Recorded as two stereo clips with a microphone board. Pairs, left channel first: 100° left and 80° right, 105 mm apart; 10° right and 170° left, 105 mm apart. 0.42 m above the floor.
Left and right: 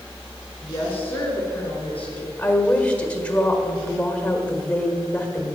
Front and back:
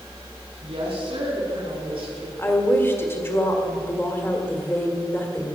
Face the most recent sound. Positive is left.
turn(degrees=35)